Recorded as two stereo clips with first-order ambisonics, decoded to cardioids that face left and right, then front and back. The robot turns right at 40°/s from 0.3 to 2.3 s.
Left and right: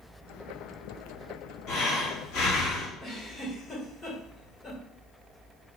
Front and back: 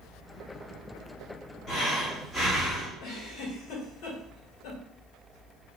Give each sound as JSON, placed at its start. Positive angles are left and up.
{"t": 1.7, "sound": "breathing", "azimuth_deg": 50, "distance_m": 1.3}
{"t": 3.0, "sound": "a giggle", "azimuth_deg": 25, "distance_m": 1.8}